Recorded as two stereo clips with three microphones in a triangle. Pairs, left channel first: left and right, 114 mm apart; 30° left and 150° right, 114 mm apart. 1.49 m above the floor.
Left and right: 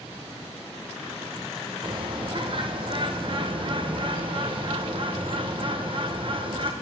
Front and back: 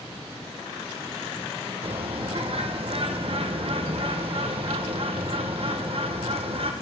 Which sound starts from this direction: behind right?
A bird, at 1.8 s.